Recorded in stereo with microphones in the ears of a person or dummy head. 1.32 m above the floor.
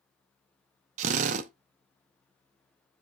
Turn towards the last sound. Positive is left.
turn(degrees=-45)  # may be behind; listen again after turning